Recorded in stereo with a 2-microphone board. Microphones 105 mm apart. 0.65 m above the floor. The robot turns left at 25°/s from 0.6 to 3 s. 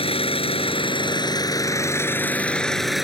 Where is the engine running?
60° left; by 3.0 s straight ahead.